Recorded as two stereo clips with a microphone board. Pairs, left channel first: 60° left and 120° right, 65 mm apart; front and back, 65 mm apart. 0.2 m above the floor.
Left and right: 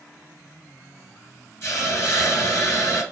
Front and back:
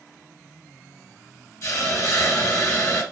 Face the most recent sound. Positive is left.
turn(degrees=20)